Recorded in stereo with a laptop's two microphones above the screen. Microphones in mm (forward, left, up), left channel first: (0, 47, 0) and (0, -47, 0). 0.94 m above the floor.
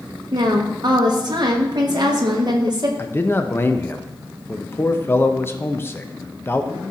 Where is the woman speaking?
50° right (ahead or behind), 0.9 m.